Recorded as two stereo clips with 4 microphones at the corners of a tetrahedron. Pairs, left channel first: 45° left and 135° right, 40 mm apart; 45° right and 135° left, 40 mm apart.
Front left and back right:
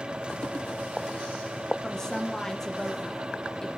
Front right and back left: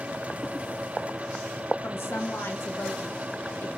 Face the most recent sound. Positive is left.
turn(degrees=-30)